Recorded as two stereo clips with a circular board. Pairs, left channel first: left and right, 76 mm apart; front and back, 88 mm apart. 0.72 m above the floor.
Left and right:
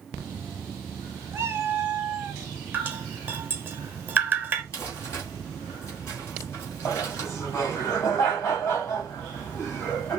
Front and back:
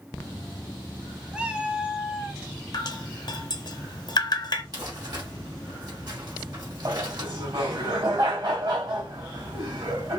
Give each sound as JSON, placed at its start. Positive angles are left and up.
{"t": 1.3, "sound": "a cat meowing", "azimuth_deg": -110, "distance_m": 0.7}
{"t": 2.7, "sound": "dripping", "azimuth_deg": -25, "distance_m": 0.9}
{"t": 4.7, "sound": "crumpling", "azimuth_deg": 145, "distance_m": 3.0}
{"t": 6.8, "sound": "laughter", "azimuth_deg": 145, "distance_m": 3.0}